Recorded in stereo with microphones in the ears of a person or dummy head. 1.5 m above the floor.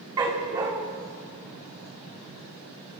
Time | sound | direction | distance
0.2 | a dog barking | 15° right (ahead or behind) | 1.5 m